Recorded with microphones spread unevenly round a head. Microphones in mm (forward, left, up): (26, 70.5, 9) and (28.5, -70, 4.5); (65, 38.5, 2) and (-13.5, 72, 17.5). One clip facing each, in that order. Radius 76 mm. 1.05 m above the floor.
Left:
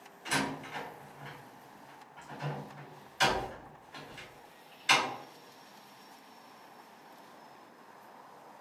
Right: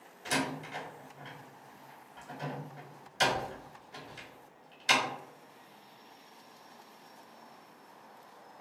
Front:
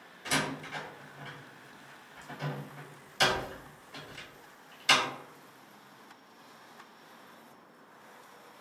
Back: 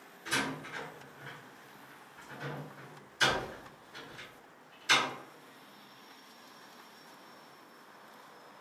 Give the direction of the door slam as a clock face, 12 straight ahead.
1 o'clock.